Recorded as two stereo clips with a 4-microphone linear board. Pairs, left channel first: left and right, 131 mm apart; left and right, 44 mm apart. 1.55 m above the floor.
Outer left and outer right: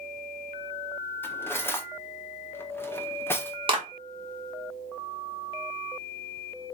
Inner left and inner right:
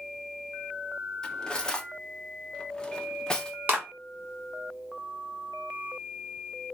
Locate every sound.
1.2 s cutlery clinking: 15° left (ahead or behind), 0.7 m
3.7 s a clap: 40° right (ahead or behind), 1.7 m